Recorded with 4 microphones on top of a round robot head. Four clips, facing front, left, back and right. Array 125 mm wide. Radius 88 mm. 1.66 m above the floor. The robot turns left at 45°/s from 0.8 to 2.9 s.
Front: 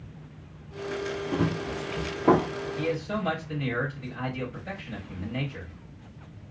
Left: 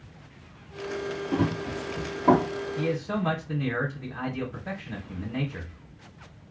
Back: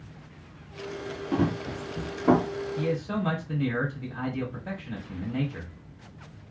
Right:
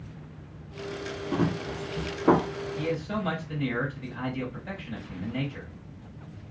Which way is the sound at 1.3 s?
155° right.